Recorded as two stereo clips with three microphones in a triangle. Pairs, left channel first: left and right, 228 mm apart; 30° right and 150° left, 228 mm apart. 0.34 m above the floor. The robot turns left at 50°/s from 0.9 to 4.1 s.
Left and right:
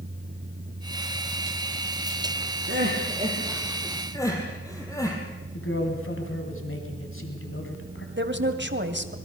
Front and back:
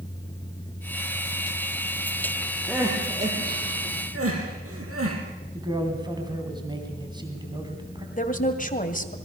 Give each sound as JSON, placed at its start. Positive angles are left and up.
{"t": 2.7, "sound": "crying", "azimuth_deg": -125, "distance_m": 5.0}
{"t": 5.5, "sound": "a man speaking", "azimuth_deg": 80, "distance_m": 3.0}
{"t": 8.2, "sound": "a woman speaking", "azimuth_deg": -75, "distance_m": 2.0}